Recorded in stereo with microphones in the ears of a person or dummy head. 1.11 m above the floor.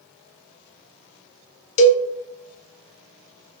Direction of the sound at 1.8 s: 40° left (ahead or behind).